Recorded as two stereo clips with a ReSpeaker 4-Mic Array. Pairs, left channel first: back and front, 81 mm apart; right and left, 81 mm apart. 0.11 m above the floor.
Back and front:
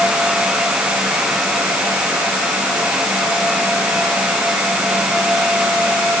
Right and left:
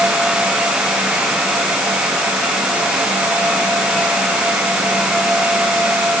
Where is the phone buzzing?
No phone buzzing in this recording.